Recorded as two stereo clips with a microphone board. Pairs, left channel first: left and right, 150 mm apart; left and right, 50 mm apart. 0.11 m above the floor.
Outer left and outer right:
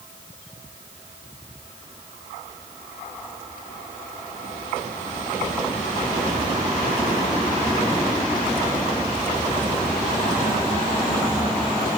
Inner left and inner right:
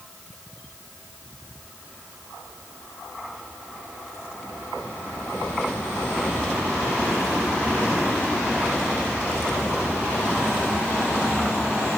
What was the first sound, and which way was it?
Only background noise.